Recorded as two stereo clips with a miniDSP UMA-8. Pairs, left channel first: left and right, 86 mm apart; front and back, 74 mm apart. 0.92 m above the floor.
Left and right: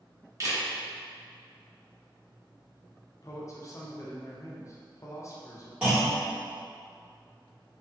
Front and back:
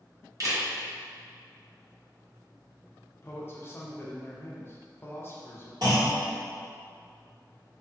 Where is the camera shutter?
140° right, 0.8 m.